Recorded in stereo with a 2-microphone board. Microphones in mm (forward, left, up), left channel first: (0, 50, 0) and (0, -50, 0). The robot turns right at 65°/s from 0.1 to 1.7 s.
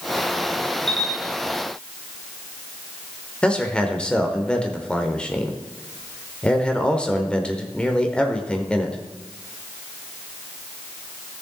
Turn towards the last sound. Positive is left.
turn(degrees=10)  # may be behind; listen again after turning